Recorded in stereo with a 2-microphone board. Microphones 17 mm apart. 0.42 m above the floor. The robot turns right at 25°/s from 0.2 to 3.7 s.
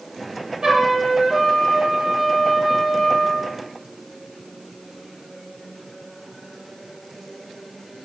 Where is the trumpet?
55° right, 8.5 m; by 3.5 s 15° left, 8.5 m.